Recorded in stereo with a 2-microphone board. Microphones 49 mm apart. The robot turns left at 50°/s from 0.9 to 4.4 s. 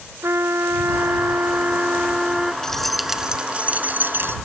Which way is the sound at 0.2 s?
90° right.